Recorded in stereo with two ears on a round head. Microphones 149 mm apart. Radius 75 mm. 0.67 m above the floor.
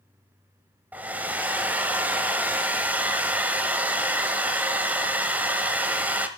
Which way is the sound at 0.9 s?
10° right (ahead or behind).